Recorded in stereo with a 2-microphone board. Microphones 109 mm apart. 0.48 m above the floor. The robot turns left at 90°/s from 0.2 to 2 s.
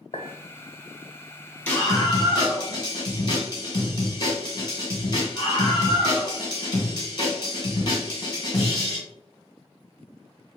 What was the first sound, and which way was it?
A clink, 65° left (ahead or behind).